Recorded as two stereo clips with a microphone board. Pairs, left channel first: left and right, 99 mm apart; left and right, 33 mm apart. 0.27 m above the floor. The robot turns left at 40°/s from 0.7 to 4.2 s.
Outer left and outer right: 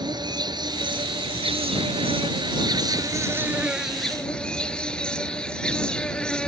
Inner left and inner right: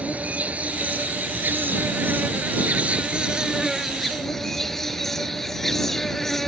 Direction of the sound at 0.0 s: 50° right.